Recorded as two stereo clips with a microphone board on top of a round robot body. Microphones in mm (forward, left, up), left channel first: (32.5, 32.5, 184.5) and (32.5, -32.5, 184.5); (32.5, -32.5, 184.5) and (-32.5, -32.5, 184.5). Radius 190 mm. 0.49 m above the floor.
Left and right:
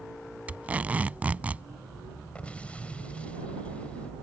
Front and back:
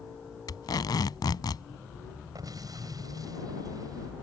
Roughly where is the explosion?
Behind.